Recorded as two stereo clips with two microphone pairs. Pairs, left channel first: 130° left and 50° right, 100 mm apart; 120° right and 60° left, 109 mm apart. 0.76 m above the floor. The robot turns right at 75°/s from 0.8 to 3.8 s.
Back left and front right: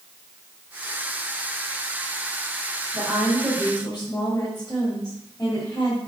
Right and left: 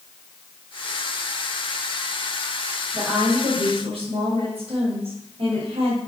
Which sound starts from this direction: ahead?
A woman speaking, at 2.9 s.